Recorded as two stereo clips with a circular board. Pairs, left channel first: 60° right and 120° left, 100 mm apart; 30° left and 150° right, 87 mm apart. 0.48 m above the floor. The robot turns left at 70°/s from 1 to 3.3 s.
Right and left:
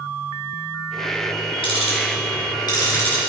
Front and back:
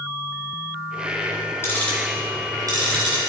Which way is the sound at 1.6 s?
30° right.